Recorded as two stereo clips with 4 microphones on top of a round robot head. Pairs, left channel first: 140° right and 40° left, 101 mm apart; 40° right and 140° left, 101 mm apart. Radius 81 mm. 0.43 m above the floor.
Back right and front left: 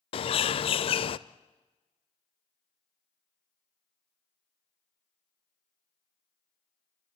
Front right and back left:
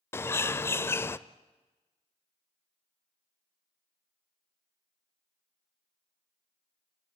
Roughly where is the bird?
Right.